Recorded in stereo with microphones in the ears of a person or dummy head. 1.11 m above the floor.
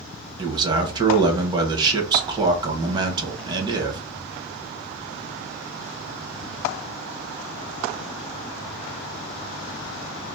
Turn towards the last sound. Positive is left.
turn(degrees=-20)  # may be behind; listen again after turning